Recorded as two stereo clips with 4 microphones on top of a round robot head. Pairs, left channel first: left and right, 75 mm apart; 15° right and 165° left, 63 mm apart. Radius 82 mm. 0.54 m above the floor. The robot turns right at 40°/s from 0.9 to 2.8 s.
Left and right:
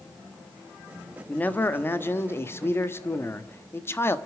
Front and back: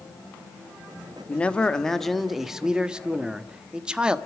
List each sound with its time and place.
1.3 s a man speaking: 40° left, 1.4 m; by 4.2 s 100° left, 1.4 m